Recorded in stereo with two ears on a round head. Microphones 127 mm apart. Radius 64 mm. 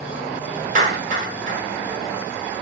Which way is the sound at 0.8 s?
55° right (ahead or behind).